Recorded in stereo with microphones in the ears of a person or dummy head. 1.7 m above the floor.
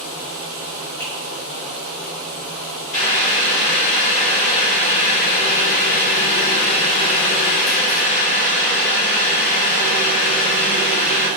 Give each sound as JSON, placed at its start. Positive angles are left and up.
{"t": 1.0, "sound": "a finger snap", "side_deg": 10, "distance_m": 1.5}
{"t": 2.9, "sound": "boiling", "side_deg": 40, "distance_m": 1.5}